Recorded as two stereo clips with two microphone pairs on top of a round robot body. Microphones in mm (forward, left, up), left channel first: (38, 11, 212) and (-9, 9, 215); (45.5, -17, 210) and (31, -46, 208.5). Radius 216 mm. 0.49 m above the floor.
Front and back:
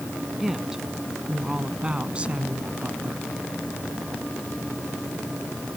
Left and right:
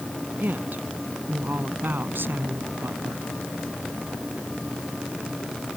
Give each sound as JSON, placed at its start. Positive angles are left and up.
{"t": 0.4, "sound": "a woman speaking", "azimuth_deg": -95}